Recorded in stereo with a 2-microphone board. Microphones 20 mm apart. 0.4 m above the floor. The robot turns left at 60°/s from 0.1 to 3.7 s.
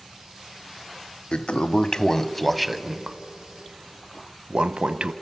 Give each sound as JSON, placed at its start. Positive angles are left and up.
{"t": 1.3, "sound": "a toilet flushing", "side_deg": 70, "distance_m": 0.5}